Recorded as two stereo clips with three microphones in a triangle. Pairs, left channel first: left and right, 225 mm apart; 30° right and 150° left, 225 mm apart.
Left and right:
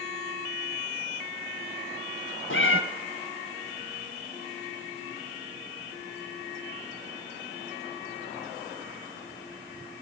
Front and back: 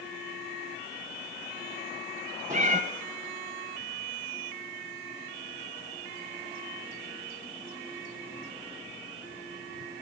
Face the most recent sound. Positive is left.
turn(degrees=100)